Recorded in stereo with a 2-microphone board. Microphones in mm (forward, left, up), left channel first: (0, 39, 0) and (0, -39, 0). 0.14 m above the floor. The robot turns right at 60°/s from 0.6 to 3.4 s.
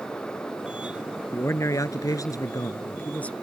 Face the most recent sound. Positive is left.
turn(degrees=165)